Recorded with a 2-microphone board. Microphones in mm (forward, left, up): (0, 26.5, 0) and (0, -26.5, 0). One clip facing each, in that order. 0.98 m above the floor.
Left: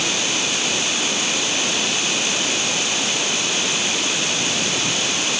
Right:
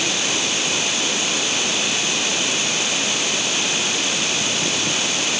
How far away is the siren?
I don't hear a siren.